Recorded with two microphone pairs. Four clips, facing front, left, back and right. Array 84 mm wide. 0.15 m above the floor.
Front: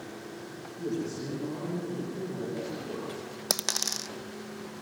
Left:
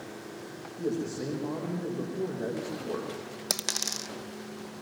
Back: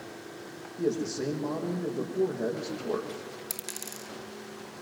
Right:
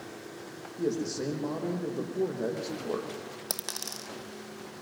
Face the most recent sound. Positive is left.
turn(degrees=10)